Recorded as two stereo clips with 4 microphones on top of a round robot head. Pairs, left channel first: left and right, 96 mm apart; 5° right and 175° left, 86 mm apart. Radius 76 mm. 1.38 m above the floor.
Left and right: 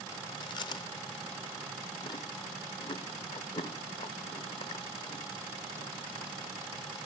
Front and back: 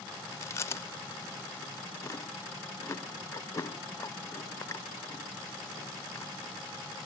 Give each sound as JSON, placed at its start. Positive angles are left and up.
{"t": 0.3, "sound": "chewing", "azimuth_deg": 50, "distance_m": 0.9}